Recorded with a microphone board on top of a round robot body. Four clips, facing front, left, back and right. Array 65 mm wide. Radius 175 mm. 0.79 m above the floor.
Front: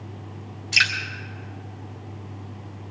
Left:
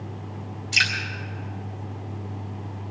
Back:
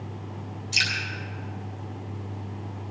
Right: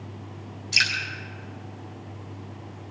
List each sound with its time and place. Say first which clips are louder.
0.7 s dripping: left 2 dB, front 6 dB; straight ahead, 4 m